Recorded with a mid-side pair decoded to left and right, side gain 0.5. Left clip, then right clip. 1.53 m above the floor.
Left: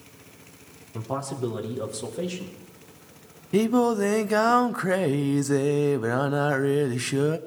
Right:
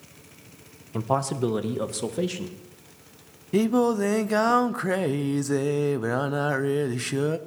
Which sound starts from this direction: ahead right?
A man speaking, at 0.9 s.